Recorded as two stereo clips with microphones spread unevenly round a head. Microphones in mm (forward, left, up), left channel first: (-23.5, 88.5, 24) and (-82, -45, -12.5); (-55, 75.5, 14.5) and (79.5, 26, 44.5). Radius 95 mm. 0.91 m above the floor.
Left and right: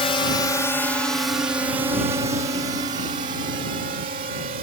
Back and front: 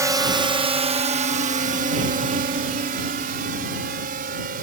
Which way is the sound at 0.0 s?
45° left.